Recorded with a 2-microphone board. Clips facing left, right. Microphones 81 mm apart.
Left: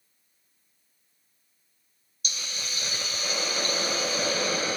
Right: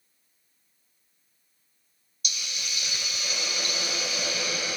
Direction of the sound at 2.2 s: 35° left (ahead or behind).